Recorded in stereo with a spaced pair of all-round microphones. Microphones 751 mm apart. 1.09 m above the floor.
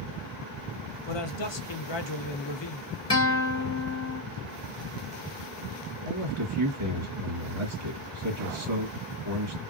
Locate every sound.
1.1 s a man speaking: 40° left (ahead or behind), 0.6 m
3.1 s a guitar: 20° left (ahead or behind), 0.8 m
6.0 s a man speaking: 60° right (ahead or behind), 1.6 m